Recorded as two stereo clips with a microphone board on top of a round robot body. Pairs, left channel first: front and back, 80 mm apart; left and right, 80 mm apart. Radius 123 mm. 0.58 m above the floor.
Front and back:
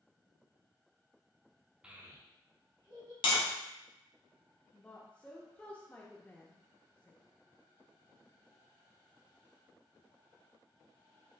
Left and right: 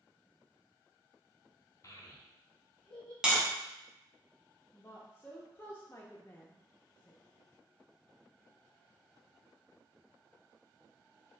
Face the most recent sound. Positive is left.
turn(degrees=60)